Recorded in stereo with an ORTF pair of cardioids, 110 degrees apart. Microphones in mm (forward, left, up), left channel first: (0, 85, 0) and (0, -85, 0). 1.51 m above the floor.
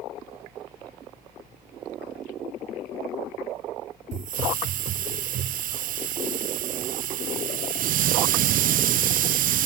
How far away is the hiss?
About 0.5 m.